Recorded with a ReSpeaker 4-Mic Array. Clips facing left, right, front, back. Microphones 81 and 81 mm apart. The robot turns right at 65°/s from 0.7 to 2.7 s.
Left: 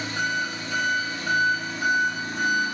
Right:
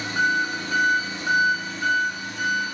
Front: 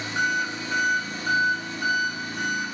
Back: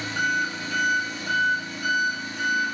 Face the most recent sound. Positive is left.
turn(degrees=70)